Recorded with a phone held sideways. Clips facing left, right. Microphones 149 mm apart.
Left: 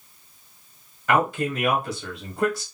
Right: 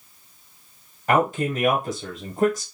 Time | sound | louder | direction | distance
1.1 | a man speaking | right 1 dB | 25° right (ahead or behind) | 0.9 m